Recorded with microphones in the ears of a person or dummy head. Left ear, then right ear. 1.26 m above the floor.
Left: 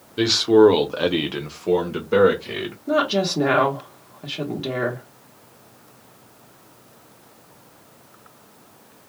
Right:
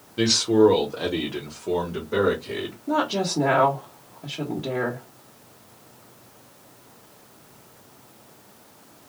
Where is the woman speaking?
25° left (ahead or behind), 1.0 m.